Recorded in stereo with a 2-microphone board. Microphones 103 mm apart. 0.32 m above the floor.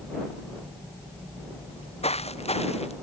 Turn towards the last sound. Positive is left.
turn(degrees=75)  # may be behind; listen again after turning